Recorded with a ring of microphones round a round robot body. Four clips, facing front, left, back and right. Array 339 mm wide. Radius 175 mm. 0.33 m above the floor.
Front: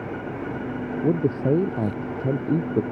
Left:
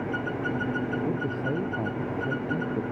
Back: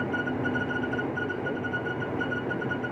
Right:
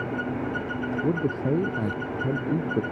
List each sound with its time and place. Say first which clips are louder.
1.0 s a man speaking: right 3 dB, front 8 dB; 20° right